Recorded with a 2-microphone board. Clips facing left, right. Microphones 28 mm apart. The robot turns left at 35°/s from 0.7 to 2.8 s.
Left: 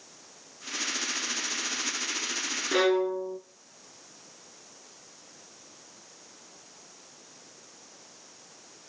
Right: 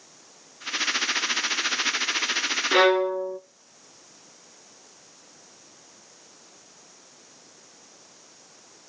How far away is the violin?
About 0.7 m.